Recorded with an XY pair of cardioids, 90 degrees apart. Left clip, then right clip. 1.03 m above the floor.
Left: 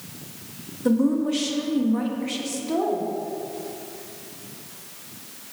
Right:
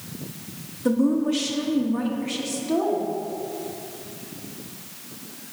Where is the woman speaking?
10° left, 1.2 m.